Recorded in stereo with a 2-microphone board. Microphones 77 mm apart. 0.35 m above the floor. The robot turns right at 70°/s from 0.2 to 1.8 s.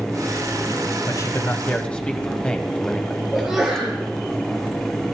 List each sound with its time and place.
1.1 s a man speaking: 55° left (ahead or behind), 1.7 m; by 3.2 s 15° left (ahead or behind), 1.7 m
3.3 s a sneeze: 5° right (ahead or behind), 6.5 m